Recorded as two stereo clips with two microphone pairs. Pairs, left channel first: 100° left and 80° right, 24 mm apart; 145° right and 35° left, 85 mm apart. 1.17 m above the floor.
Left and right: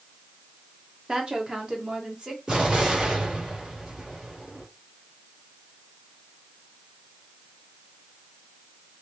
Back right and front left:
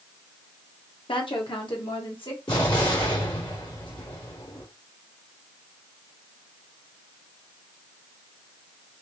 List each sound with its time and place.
1.1 s a woman speaking: 135° right, 1.0 m; by 2.4 s 130° right, 1.8 m
2.5 s an explosion: 125° right, 2.5 m